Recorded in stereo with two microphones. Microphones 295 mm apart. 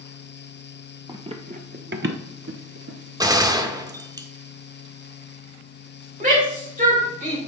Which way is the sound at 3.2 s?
15° right (ahead or behind).